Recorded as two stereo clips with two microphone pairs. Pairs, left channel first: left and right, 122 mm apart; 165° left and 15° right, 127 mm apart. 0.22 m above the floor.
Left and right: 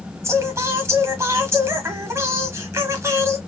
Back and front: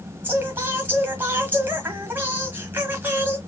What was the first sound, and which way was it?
Singing, 65° right.